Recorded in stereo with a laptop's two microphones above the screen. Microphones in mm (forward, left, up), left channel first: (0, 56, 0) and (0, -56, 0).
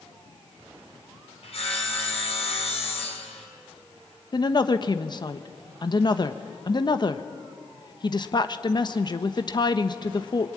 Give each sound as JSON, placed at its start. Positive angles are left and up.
{"t": 1.4, "sound": "sawing", "side_deg": 60, "distance_m": 6.0}
{"t": 4.3, "sound": "a woman speaking", "side_deg": 40, "distance_m": 1.0}